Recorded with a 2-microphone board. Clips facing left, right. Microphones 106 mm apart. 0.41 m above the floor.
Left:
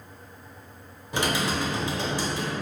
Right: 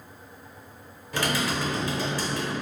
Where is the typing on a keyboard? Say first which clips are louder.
Left 1 dB; 20° left (ahead or behind), 0.6 m.